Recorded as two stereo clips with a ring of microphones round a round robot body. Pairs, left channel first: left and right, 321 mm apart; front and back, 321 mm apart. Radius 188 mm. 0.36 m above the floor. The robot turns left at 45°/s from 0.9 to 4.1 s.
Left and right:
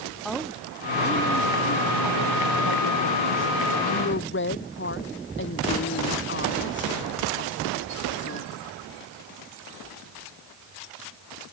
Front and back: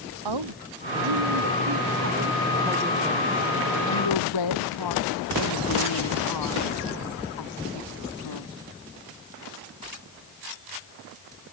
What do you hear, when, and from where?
0.2 s a woman speaking: straight behind; by 8.5 s 35° left